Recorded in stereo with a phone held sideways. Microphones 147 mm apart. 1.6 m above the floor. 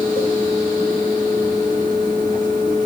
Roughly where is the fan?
Left.